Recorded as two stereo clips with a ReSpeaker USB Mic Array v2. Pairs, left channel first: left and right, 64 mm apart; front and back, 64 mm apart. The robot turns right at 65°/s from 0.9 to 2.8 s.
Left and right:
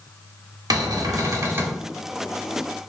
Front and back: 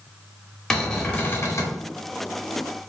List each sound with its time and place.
0.7 s a cupboard door: 85° right, 0.8 m; by 1.8 s 25° right, 0.8 m